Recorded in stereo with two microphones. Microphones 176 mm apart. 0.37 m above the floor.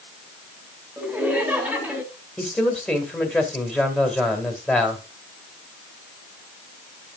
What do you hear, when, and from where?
1.0 s laughter: 10° right (ahead or behind), 3 m
2.4 s a man speaking: centre (ahead or behind), 2.0 m